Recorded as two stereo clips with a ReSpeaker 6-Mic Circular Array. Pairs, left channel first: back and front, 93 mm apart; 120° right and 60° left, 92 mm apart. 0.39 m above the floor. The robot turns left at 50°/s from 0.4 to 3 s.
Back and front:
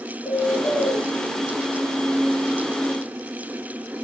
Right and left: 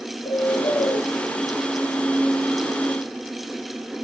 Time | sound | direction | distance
0.2 | a bird | 115° right | 3 m